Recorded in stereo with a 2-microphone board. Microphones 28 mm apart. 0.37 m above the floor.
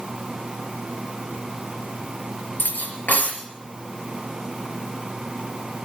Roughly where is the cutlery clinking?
Left.